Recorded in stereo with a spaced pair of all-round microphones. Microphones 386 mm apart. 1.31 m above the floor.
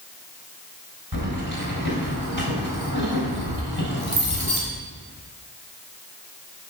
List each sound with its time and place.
1.1 s keys jangling: 75° right (ahead or behind), 4 m